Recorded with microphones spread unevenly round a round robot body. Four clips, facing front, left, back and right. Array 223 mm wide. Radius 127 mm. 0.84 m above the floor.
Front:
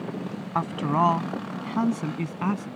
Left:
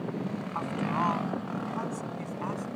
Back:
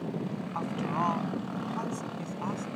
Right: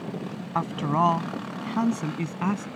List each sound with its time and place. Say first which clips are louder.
0.6 s a man speaking: right 7 dB, front 8 dB; 40° right; by 2.7 s 45° right